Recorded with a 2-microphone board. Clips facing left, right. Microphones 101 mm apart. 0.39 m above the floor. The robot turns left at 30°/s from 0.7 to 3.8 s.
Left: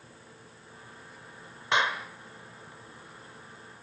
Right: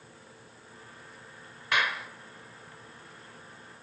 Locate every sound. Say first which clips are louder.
1.7 s a clap: left 2 dB; 25° left (ahead or behind), 1.5 m; by 2.1 s 30° left (ahead or behind), 1.5 m